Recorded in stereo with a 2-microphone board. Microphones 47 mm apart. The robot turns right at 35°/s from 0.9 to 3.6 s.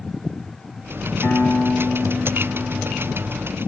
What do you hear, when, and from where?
1.2 s a piano: 115° left, 1.6 m; by 3.4 s 170° right, 1.6 m